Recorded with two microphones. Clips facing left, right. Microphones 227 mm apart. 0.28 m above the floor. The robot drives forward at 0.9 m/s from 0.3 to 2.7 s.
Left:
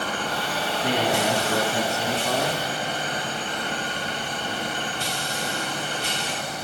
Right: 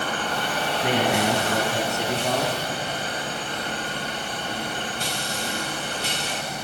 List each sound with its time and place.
0.8 s a man speaking: 65° right (ahead or behind), 4 m; by 2.6 s 50° right (ahead or behind), 4.5 m